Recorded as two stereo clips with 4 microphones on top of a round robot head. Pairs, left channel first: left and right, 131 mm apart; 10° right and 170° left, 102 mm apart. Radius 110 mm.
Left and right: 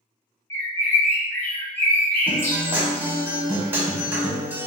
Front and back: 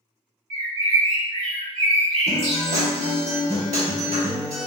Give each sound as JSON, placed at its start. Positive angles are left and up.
{"t": 0.5, "sound": "a bird", "azimuth_deg": 165, "distance_m": 0.7}
{"t": 2.3, "sound": "a guitar", "azimuth_deg": -165, "distance_m": 0.6}